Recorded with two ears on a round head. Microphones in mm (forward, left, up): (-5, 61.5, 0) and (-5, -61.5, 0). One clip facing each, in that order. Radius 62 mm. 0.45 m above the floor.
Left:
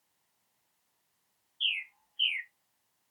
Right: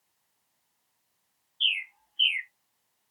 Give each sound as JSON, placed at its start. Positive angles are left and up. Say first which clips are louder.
{"t": 1.6, "sound": "a bird", "louder": "right 4 dB", "side_deg": -50, "distance_m": 0.5}